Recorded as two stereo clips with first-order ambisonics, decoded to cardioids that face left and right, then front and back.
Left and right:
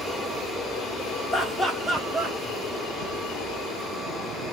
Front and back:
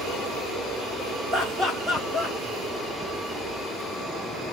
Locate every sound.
1.3 s laughter: 150° left, 0.8 m; by 2.4 s 70° right, 0.8 m